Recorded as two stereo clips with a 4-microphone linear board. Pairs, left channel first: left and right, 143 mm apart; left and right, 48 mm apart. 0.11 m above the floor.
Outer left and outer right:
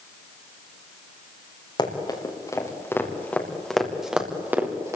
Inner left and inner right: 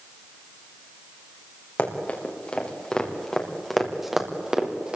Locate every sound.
1.8 s running footsteps: 35° left (ahead or behind), 5 m; by 5.0 s 20° right (ahead or behind), 4 m